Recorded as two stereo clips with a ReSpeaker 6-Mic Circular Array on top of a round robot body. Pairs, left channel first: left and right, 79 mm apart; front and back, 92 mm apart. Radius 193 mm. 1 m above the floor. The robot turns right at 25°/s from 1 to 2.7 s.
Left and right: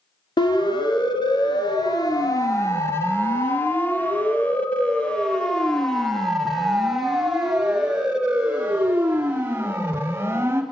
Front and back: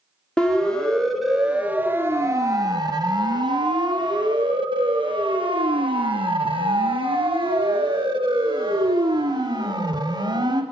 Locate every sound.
0.4 s a siren: 80° left, 4 m; by 10.6 s 150° right, 4.5 m